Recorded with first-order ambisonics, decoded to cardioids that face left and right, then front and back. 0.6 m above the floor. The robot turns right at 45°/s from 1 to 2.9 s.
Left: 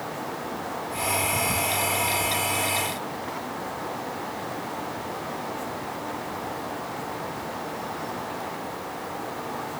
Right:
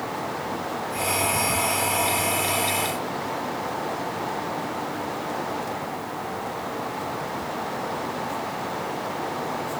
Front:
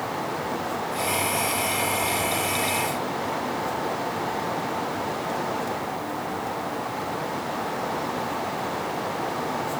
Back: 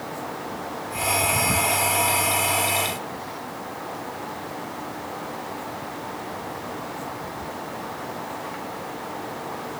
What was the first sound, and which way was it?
Only background noise.